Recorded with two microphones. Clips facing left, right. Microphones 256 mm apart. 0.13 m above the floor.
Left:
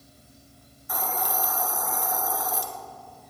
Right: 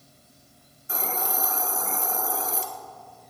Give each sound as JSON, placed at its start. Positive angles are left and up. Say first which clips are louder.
{"t": 0.9, "sound": "a hiss", "louder": "even", "side_deg": -25, "distance_m": 1.0}